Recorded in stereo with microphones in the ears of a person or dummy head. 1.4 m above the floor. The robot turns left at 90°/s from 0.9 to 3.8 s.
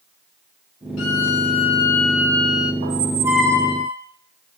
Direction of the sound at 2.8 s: 125° right.